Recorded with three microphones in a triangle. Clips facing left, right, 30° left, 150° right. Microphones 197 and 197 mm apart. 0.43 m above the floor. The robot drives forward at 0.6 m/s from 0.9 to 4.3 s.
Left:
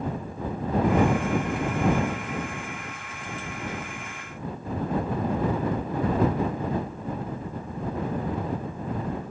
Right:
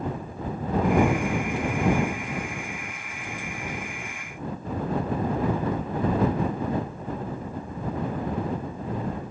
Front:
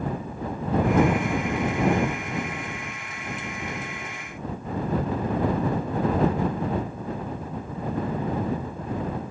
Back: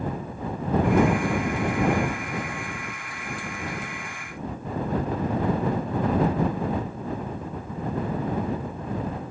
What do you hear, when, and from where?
Only background noise.